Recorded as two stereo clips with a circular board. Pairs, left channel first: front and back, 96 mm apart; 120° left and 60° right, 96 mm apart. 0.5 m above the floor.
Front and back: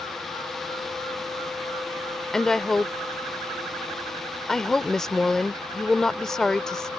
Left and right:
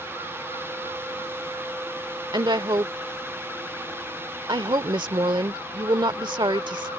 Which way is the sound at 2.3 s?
85° right.